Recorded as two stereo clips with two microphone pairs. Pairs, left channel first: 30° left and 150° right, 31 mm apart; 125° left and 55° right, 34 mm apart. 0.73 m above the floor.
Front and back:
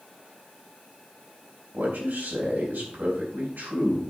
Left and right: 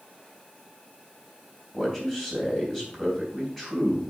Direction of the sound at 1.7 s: 155° right.